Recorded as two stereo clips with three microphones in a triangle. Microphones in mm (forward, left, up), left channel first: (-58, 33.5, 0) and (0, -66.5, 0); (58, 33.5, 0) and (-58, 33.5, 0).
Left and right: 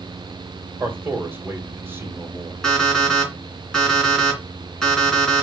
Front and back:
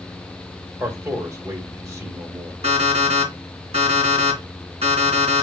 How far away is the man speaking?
About 2 m.